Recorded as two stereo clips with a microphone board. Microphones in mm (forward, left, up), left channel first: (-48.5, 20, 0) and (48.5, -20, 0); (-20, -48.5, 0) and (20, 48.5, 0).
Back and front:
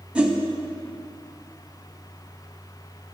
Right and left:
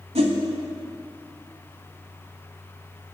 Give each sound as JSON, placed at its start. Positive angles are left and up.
{"t": 0.1, "sound": "a whoosh", "azimuth_deg": 55, "distance_m": 0.7}